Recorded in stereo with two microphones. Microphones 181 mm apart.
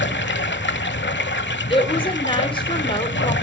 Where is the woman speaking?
30° left (ahead or behind), 1.5 m.